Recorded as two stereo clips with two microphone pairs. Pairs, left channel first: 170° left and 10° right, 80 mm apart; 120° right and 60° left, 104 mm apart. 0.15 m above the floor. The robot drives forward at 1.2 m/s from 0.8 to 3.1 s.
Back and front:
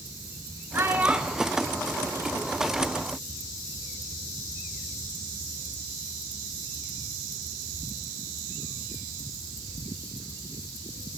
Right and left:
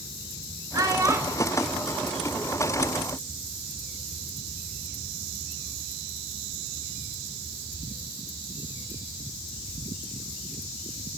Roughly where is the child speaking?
Ahead left.